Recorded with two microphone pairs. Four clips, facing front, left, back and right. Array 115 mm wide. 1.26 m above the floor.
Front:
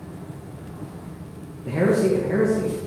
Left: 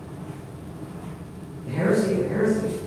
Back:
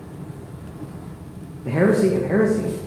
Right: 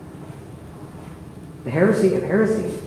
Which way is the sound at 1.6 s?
115° right.